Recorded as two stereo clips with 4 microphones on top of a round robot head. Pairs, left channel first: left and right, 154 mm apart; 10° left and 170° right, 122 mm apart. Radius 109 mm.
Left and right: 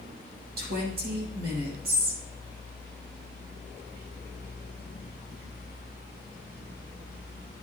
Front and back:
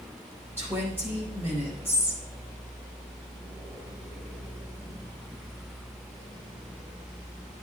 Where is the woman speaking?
95° right, 5 m.